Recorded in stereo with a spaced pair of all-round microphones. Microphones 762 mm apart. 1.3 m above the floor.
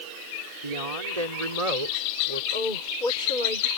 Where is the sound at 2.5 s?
85° left.